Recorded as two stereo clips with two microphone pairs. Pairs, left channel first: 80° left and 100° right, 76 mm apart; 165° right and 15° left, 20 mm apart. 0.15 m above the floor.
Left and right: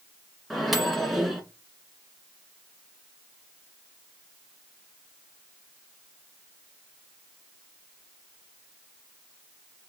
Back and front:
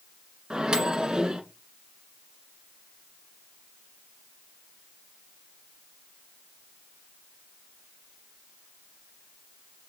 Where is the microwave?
5° right, 1.4 m.